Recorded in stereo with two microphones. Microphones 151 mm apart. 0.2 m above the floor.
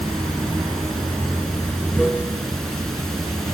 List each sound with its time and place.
0.0 s running water: 5° left (ahead or behind), 0.9 m